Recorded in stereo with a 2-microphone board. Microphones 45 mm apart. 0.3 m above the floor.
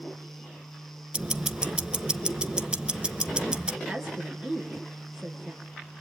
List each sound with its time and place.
1.1 s ticking: 20° right (ahead or behind), 0.7 m
3.9 s a woman speaking: 15° right (ahead or behind), 4 m